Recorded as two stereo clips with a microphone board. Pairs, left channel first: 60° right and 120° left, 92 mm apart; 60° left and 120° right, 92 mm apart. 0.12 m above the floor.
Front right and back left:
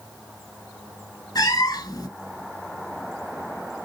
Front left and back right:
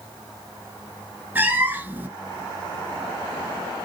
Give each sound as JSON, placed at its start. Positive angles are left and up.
{"t": 1.4, "sound": "a cat meowing", "azimuth_deg": -65, "distance_m": 0.7}